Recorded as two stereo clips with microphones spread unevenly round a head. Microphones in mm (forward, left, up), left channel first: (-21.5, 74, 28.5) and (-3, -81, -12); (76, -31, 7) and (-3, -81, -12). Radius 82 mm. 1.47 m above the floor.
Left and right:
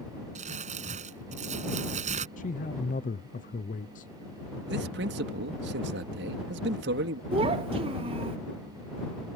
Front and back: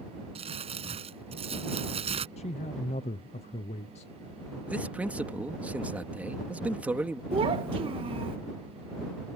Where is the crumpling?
135° right.